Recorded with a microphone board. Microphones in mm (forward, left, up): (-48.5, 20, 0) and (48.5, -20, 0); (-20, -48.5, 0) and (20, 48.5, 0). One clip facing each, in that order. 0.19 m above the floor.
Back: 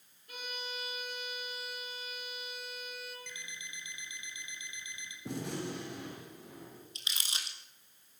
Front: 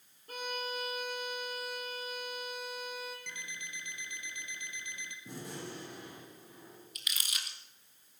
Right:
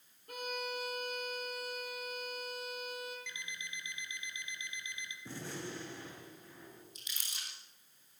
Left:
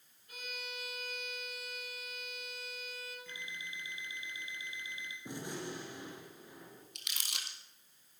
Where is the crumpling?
95° left, 2.5 m.